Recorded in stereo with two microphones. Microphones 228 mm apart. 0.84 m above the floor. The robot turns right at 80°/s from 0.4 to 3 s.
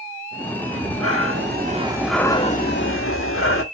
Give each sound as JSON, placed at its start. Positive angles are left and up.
{"t": 0.7, "sound": "breathing", "azimuth_deg": -115, "distance_m": 1.2}